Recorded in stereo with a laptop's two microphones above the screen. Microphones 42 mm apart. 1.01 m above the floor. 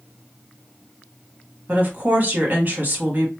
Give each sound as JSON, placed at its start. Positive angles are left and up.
{"t": 1.7, "sound": "a woman speaking", "side_deg": -50, "distance_m": 1.6}